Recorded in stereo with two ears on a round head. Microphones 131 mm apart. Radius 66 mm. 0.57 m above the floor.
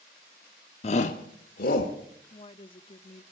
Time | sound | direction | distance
0.8 | a shout | 40° left (ahead or behind) | 0.8 m
2.3 | a woman speaking | 35° left (ahead or behind) | 0.7 m